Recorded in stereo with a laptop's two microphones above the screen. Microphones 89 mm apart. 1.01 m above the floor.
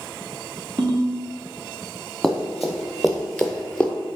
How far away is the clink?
No clink in this recording.